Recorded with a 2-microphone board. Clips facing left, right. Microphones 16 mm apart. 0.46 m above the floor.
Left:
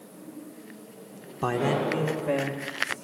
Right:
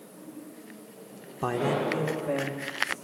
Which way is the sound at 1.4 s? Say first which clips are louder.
Left 2 dB; 20° left (ahead or behind).